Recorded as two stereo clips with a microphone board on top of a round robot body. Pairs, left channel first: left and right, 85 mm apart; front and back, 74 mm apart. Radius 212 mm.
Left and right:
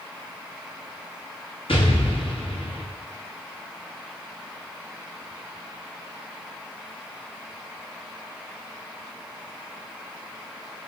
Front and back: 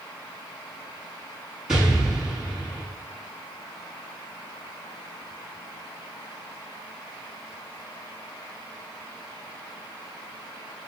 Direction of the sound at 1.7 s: 100° left.